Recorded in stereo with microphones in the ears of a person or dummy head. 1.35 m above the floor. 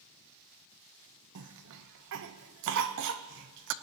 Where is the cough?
60° right (ahead or behind), 0.8 m.